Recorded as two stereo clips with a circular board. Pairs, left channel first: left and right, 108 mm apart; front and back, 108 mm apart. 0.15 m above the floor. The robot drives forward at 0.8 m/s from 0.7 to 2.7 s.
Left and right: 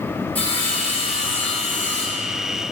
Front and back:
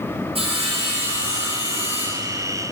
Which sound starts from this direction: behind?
Sawing, at 0.3 s.